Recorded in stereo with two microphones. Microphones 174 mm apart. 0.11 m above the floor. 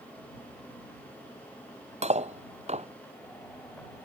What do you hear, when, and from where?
2.0 s cutlery clinking: 40° right (ahead or behind)